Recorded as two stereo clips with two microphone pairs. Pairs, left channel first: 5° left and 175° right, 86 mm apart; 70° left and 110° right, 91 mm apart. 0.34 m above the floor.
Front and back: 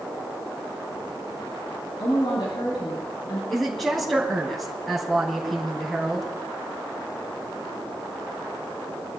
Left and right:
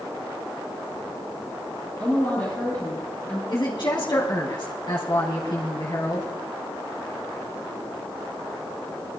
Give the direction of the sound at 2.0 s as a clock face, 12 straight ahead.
12 o'clock.